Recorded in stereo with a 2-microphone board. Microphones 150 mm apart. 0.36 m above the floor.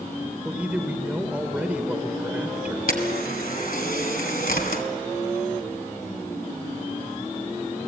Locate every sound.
0.5 s a man speaking: 10° right (ahead or behind), 1.4 m
2.9 s a camera shutter: 75° left (ahead or behind), 2 m